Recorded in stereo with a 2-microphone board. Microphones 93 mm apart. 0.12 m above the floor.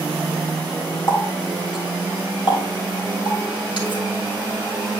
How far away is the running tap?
About 3 m.